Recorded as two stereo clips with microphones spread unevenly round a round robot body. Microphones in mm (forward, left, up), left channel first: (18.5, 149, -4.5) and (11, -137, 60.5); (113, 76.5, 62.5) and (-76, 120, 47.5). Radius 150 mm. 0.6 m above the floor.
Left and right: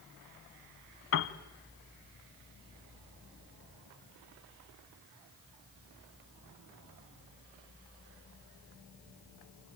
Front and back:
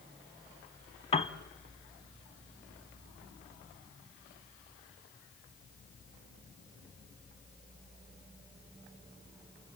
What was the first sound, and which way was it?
A piano, 40° left.